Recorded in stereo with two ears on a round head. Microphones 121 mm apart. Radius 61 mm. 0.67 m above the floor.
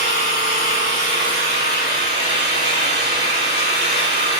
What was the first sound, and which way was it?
An engine running, 80° left.